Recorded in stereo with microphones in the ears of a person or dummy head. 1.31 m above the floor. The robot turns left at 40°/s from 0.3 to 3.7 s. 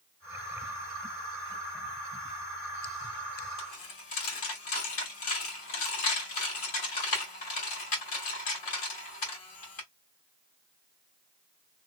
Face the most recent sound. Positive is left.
turn(degrees=45)  # may be behind; listen again after turning